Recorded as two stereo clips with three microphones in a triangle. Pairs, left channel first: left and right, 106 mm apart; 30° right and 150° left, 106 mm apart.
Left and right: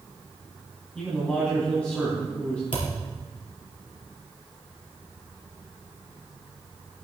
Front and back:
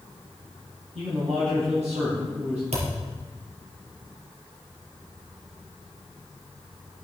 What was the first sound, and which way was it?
A man speaking, 170° left.